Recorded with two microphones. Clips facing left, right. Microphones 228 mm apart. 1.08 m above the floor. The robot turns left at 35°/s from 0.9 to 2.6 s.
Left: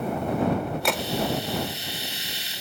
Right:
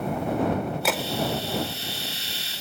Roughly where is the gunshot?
Centre.